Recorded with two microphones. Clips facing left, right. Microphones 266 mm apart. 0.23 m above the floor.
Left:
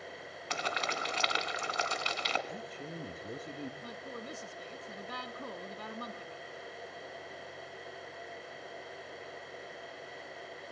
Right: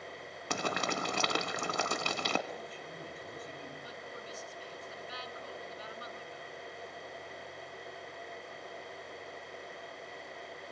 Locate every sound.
0.5 s boiling: 50° right (ahead or behind), 2.0 m
2.5 s a man speaking: 45° left (ahead or behind), 5 m
3.8 s a woman speaking: 60° left (ahead or behind), 2.5 m